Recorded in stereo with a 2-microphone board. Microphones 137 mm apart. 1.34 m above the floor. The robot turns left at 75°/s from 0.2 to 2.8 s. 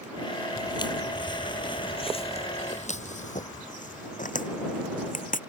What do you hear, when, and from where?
0.6 s footsteps: 30° left (ahead or behind); by 5.4 s 75° left (ahead or behind)